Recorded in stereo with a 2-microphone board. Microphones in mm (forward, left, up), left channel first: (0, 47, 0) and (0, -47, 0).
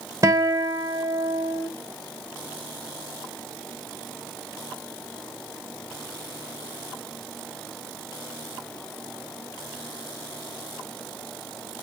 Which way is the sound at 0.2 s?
35° right (ahead or behind).